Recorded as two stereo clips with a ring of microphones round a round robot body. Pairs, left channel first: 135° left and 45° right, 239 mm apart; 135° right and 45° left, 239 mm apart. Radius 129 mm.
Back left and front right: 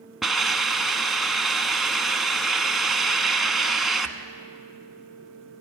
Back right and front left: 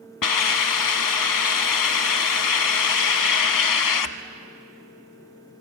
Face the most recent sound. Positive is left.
turn(degrees=-135)